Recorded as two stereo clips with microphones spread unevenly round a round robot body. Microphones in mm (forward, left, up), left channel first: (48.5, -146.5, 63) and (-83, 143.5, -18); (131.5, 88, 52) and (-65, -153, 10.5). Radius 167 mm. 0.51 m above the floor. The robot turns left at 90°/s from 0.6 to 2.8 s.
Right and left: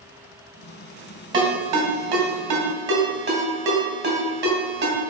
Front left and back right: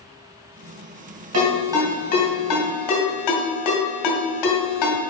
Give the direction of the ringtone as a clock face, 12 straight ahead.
6 o'clock.